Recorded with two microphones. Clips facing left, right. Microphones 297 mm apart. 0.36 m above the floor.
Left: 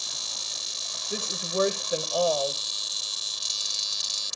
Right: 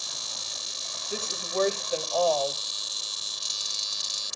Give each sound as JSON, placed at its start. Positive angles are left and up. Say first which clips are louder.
{"t": 1.1, "sound": "a woman speaking", "louder": "left 1 dB", "side_deg": 15, "distance_m": 1.4}